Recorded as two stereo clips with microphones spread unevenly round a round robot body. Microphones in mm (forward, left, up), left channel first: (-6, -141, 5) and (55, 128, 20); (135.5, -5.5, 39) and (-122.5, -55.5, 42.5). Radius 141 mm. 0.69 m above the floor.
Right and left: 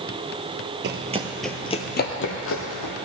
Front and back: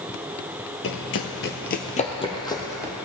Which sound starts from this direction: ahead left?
Running footsteps, at 0.8 s.